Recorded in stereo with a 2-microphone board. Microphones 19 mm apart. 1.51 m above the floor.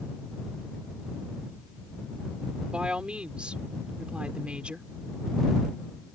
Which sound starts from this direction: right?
A woman speaking, at 2.7 s.